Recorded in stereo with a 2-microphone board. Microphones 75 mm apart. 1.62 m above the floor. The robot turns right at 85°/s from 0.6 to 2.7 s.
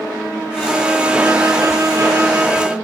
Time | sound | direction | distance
0.6 | a violin | 170° left | 2.5 m